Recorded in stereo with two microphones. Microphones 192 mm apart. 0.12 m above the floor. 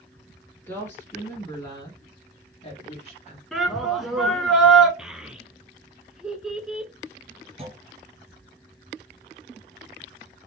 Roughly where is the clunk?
Right.